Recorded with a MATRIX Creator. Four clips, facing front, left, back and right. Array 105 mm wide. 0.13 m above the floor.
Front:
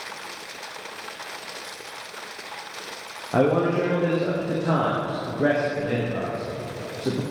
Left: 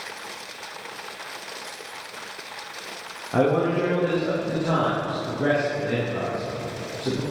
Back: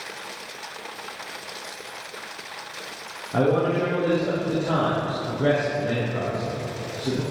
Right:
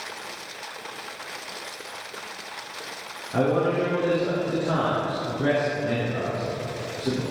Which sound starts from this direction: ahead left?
A man speaking, at 3.3 s.